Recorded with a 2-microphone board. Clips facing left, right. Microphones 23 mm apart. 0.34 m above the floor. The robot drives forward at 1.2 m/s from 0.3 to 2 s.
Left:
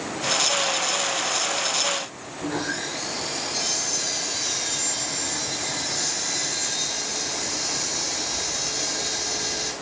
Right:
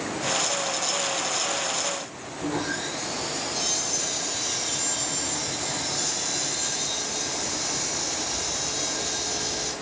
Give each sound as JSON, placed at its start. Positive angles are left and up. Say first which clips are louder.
{"t": 2.4, "sound": "sawing", "louder": "left 1 dB", "side_deg": 35, "distance_m": 6.5}